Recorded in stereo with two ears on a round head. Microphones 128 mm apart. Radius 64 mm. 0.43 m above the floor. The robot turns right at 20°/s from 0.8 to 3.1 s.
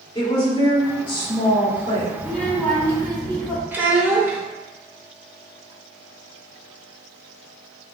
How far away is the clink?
I don't hear a clink.